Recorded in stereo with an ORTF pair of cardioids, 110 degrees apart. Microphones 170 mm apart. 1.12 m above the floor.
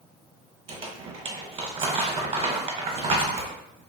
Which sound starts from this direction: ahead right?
Crumpling, at 0.7 s.